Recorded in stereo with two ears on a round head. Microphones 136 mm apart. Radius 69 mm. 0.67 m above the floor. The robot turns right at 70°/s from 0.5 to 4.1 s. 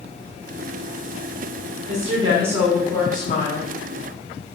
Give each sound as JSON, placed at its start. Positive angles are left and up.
{"t": 1.9, "sound": "a woman speaking", "azimuth_deg": -60, "distance_m": 2.5}